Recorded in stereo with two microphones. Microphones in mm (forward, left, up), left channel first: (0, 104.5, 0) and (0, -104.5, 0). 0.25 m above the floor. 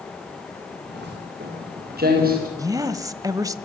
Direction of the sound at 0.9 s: 55° right (ahead or behind).